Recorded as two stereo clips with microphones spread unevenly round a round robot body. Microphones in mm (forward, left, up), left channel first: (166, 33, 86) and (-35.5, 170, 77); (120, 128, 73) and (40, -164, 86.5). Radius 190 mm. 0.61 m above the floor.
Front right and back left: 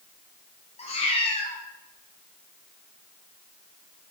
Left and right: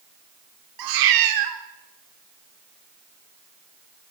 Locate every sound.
0.8 s a cat meowing: 105° right, 1.0 m